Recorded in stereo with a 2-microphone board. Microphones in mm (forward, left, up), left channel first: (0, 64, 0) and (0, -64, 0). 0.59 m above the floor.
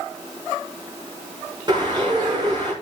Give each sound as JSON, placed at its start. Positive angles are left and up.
{"t": 1.7, "sound": "a bird", "side_deg": -35, "distance_m": 7.5}